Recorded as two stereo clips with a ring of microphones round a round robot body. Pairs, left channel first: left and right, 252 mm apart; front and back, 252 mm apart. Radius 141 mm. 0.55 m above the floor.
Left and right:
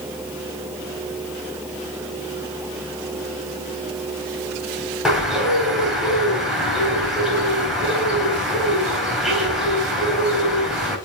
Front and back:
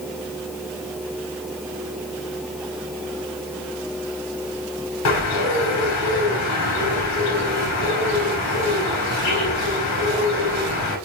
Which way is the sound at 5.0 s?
5° right.